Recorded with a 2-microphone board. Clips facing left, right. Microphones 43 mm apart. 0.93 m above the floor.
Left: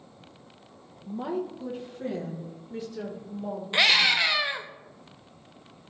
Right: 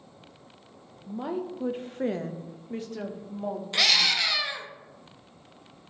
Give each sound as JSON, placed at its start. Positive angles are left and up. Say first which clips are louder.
{"t": 1.1, "sound": "a woman speaking", "louder": "left 1 dB", "side_deg": 0, "distance_m": 0.7}
{"t": 3.7, "sound": "a scream", "louder": "left 3 dB", "side_deg": 20, "distance_m": 1.0}